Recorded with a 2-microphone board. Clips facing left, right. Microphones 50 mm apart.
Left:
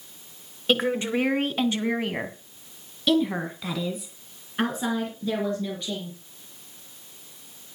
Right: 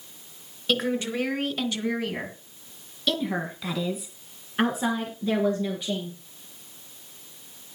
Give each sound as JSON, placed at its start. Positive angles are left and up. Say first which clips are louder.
{"t": 0.7, "sound": "a woman speaking", "louder": "left 3 dB", "side_deg": 30, "distance_m": 2.5}